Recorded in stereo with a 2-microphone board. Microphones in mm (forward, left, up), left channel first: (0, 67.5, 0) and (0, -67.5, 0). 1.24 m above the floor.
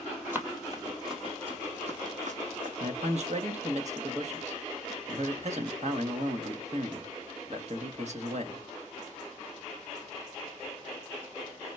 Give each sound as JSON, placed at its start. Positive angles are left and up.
{"t": 0.3, "sound": "running footsteps", "side_deg": -15, "distance_m": 1.6}
{"t": 2.8, "sound": "a man speaking", "side_deg": -60, "distance_m": 1.5}